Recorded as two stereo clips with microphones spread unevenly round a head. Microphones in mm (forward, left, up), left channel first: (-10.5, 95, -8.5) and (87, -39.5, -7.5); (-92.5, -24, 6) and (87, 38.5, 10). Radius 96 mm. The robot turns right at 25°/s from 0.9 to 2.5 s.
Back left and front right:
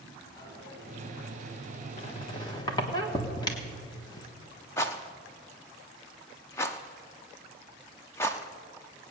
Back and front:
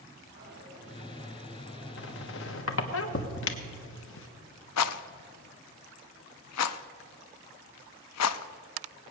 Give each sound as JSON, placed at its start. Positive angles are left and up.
{"t": 0.4, "sound": "a dropped coin", "azimuth_deg": 60, "distance_m": 5.0}
{"t": 2.0, "sound": "a squeak", "azimuth_deg": 180, "distance_m": 1.2}
{"t": 4.8, "sound": "a rattle", "azimuth_deg": -155, "distance_m": 0.6}